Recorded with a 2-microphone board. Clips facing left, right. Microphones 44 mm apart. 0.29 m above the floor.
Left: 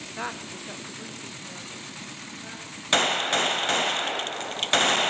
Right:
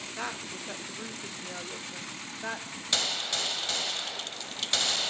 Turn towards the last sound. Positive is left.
turn(degrees=45)  # may be behind; listen again after turning